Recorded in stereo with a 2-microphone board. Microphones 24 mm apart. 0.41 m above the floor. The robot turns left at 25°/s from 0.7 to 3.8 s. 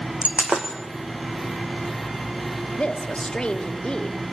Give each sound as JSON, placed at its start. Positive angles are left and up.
{"t": 0.2, "sound": "breaking glass", "side_deg": -45, "distance_m": 3.5}
{"t": 2.7, "sound": "a woman speaking", "side_deg": 40, "distance_m": 1.7}